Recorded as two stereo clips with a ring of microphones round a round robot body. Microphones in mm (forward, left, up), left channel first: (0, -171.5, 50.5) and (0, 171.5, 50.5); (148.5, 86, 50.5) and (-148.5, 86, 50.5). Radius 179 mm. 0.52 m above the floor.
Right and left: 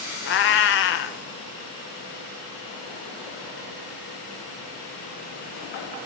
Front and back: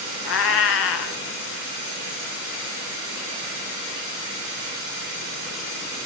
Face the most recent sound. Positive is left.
turn(degrees=-45)